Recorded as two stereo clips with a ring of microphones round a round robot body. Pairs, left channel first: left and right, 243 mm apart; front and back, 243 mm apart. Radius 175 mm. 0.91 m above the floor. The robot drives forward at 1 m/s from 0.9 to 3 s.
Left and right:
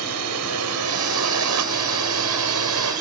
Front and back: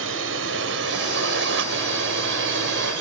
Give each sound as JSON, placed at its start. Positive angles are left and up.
{"t": 0.0, "sound": "a drone", "azimuth_deg": -125}